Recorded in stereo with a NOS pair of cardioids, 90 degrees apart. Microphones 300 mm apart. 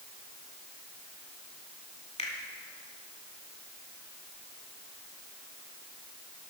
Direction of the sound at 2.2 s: 20° left.